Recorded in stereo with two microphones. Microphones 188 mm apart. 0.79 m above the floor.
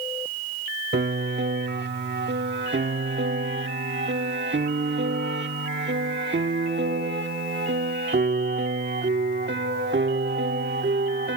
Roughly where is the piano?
Right.